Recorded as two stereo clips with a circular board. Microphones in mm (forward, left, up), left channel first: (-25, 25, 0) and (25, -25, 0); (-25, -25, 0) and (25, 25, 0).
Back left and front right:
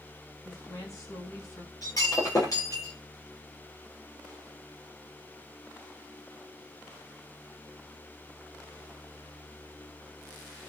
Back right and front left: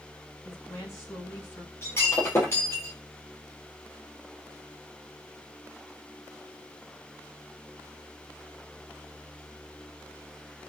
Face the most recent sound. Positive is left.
turn(degrees=175)